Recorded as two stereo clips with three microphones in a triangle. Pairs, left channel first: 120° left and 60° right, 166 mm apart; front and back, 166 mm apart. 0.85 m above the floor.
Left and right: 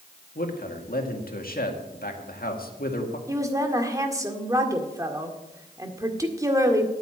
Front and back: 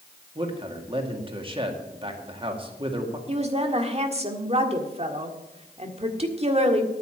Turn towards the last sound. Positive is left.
turn(degrees=-130)